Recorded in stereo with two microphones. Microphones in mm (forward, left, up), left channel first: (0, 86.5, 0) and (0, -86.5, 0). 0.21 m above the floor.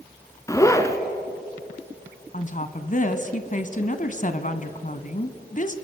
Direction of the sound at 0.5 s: 20° left (ahead or behind).